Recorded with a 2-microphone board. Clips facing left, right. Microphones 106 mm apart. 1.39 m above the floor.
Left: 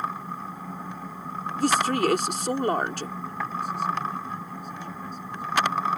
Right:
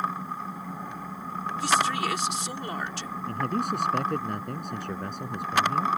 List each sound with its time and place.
1.6 s a woman speaking: 50° left (ahead or behind)
3.3 s a man speaking: 70° right (ahead or behind)